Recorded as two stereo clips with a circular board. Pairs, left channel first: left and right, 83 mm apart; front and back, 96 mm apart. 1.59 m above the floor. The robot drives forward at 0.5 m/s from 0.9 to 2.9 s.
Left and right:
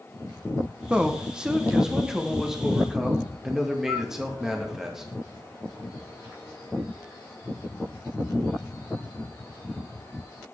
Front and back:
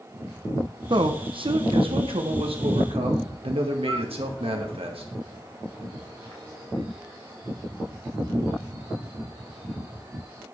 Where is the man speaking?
165° right, 0.8 m; by 5.1 s 175° right, 1.7 m.